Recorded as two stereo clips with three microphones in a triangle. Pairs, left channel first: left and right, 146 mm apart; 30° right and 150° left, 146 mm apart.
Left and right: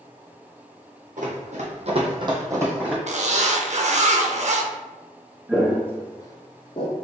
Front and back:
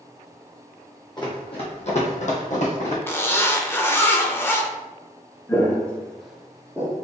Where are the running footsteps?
85° right, 1.6 m; by 3.0 s 10° right, 1.6 m.